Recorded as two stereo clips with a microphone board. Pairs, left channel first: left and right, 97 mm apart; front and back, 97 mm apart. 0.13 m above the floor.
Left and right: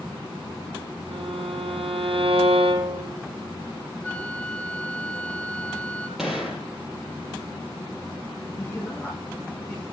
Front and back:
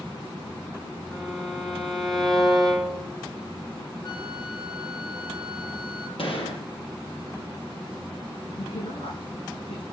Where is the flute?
15° left, 1.9 m.